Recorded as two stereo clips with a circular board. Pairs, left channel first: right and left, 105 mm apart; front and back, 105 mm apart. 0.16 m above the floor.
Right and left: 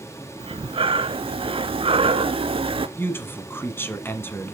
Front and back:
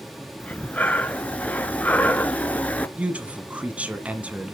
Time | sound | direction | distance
0.4 | breathing | 75° left | 0.7 m
3.0 | a man speaking | 120° right | 1.2 m